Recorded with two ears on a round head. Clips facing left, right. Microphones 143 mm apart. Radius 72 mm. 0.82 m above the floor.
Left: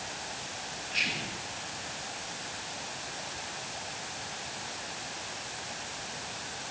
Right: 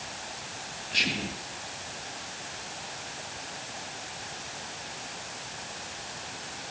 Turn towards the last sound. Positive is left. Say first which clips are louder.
# right 7 dB
turn(degrees=-40)  # may be behind; listen again after turning